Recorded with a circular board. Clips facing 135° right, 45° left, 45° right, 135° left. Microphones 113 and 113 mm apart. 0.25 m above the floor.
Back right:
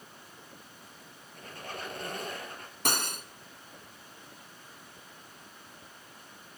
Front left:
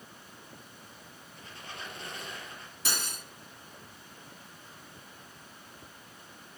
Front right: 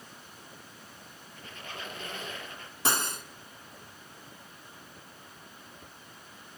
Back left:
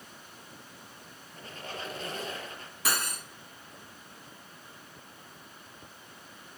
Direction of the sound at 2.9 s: 105° right.